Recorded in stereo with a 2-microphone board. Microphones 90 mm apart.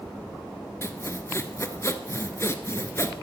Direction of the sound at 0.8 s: 30° left (ahead or behind).